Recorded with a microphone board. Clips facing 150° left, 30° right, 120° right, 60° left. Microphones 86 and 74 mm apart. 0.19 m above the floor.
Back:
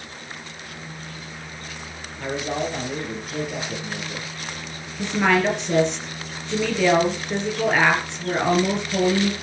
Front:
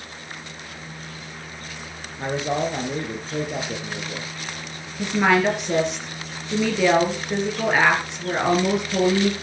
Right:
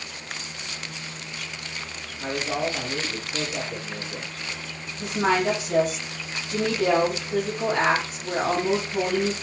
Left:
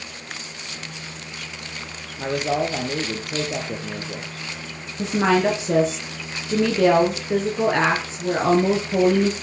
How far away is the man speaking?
About 3.5 m.